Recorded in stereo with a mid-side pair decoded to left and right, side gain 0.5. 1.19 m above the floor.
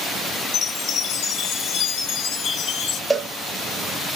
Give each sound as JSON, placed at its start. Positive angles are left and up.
{"t": 0.5, "sound": "a chime", "azimuth_deg": 65, "distance_m": 0.7}
{"t": 3.1, "sound": "a cowbell", "azimuth_deg": -5, "distance_m": 0.8}